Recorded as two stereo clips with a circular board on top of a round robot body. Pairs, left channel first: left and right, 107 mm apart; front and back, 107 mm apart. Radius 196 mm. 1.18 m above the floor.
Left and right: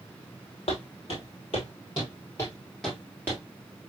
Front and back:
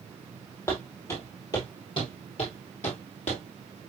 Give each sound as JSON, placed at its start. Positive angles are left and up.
{"t": 0.7, "sound": "footsteps", "azimuth_deg": 65, "distance_m": 2.0}